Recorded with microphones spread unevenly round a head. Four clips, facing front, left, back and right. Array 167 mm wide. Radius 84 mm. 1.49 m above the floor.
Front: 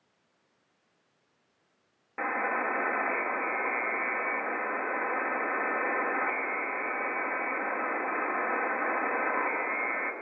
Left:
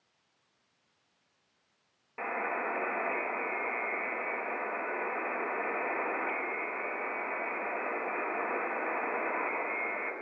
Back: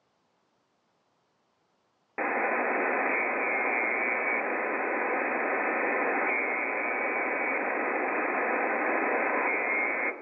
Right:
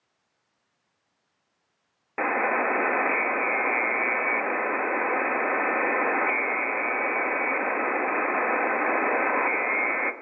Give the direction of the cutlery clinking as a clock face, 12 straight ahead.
I don't hear cutlery clinking.